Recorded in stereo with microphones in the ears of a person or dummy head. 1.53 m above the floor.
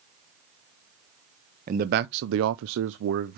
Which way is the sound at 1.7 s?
35° right (ahead or behind).